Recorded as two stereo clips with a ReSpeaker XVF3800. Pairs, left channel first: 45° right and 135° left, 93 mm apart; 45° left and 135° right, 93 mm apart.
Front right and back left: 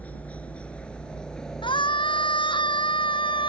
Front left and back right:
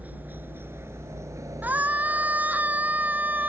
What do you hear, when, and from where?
0.0 s a helicopter: 90° right; by 3.5 s 140° right
1.6 s a scream: 65° right